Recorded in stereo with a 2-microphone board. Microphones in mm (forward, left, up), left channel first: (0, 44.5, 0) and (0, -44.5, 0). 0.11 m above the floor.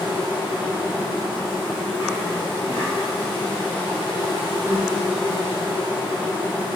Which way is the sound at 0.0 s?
70° left (ahead or behind).